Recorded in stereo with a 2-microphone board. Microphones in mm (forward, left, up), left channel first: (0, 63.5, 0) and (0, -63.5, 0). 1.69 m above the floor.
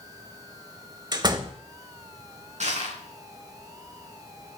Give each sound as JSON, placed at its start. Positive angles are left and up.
{"t": 1.1, "sound": "a door slam", "side_deg": -35, "distance_m": 1.5}
{"t": 2.6, "sound": "crushing", "side_deg": -70, "distance_m": 4.5}